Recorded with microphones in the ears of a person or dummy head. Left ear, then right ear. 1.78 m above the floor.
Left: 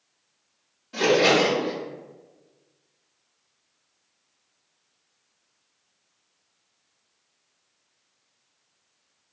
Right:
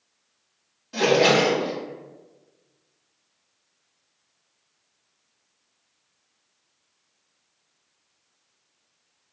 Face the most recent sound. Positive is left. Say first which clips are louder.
# right 1 dB
turn(degrees=-10)  # may be behind; listen again after turning